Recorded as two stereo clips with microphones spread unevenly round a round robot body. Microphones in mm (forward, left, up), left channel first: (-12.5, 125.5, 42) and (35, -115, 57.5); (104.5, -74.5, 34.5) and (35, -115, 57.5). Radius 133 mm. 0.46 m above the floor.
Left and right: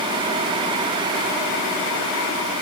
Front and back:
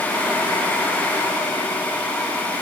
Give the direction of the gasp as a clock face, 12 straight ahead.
I don't hear a gasp.